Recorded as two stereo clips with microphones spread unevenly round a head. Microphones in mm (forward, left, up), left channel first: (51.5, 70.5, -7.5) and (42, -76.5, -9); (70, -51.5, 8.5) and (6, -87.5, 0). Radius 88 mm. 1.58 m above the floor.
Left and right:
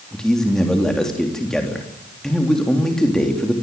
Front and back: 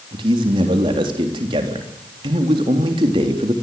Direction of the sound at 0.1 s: 175° left.